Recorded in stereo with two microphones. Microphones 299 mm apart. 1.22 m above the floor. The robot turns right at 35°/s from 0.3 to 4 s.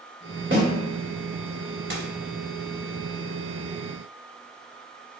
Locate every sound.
0.5 s a snare drum: 40° right (ahead or behind), 1.1 m; by 0.7 s 35° right (ahead or behind), 1.1 m
1.9 s a dropped coin: 40° right (ahead or behind), 0.8 m; by 2.1 s 45° right (ahead or behind), 0.8 m